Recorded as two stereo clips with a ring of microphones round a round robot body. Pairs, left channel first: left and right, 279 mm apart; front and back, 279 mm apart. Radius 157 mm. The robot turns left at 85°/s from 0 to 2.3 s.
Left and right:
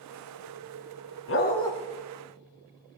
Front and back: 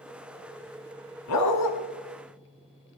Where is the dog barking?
45° left, 1.4 m; by 1.7 s 5° left, 1.4 m.